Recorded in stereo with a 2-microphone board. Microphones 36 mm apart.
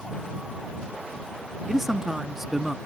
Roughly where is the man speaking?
Centre.